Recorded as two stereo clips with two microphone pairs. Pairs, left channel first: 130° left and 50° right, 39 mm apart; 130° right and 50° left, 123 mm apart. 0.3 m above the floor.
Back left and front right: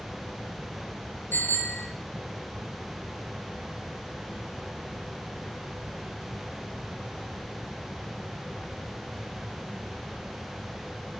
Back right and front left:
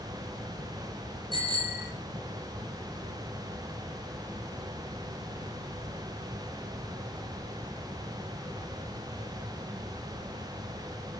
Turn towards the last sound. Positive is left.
turn(degrees=100)